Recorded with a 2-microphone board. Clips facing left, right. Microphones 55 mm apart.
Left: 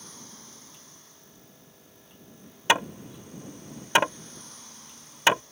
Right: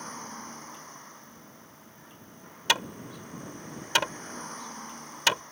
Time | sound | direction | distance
0.0 | a vehicle | 45° right (ahead or behind) | ?
2.7 | hammering | 25° left (ahead or behind) | ?